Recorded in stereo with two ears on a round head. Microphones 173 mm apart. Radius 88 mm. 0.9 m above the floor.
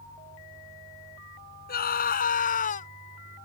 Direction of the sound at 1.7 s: 50° left (ahead or behind).